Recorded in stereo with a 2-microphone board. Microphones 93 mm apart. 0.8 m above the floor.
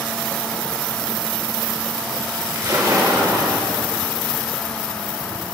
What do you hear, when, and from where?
2.5 s a splash: 40° right (ahead or behind), 3 m